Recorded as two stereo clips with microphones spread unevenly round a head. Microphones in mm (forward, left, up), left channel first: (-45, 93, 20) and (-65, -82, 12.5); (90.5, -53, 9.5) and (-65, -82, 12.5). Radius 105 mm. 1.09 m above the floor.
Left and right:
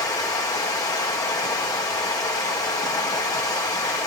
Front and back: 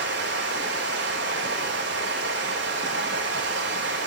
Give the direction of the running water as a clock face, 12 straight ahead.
7 o'clock.